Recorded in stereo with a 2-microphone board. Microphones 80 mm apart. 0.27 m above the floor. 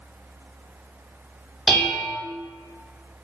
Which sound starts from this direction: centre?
Dishes clattering, at 1.7 s.